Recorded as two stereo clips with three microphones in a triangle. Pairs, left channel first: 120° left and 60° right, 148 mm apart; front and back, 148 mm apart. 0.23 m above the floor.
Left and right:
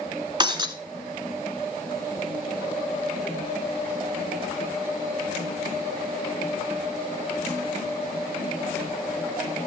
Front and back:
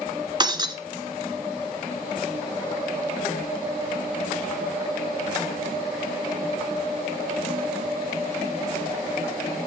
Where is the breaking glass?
120° right, 1.2 m.